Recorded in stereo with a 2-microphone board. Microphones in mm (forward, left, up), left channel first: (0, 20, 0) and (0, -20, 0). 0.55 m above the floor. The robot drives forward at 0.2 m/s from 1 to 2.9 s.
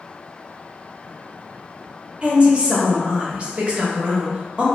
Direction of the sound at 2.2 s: 30° right (ahead or behind).